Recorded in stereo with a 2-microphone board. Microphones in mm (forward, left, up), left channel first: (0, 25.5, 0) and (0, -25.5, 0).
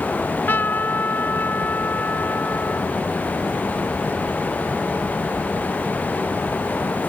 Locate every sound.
0.1 s a trumpet: 45° left (ahead or behind)